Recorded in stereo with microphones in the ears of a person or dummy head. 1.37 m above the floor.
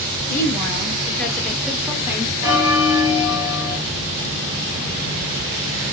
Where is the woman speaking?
15° left (ahead or behind), 1.7 m; by 2.3 s 20° right (ahead or behind), 0.9 m.